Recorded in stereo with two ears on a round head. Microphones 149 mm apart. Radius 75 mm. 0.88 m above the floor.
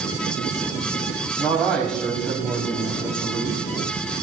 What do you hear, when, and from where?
1.4 s a man speaking: 5° left (ahead or behind), 5 m